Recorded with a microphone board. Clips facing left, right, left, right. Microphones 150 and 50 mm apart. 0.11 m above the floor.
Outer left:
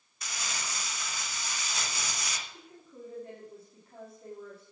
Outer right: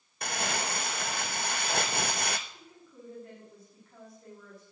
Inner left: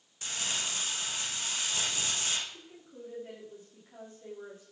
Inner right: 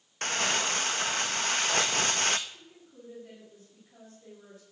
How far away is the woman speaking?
About 7.5 m.